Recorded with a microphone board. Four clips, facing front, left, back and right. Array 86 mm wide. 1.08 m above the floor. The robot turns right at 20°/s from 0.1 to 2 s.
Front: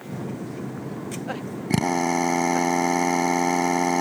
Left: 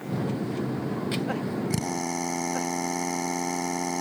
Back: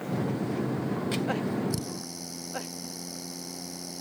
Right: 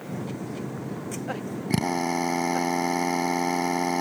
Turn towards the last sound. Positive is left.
turn(degrees=-15)